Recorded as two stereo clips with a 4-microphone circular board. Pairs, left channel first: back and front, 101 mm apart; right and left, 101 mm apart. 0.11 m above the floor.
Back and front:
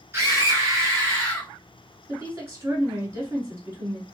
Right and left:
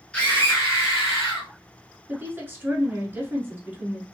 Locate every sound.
0.1 s a scream: 25° right, 1.2 m; by 1.5 s 55° right, 2.5 m
2.1 s a woman speaking: 35° left, 1.1 m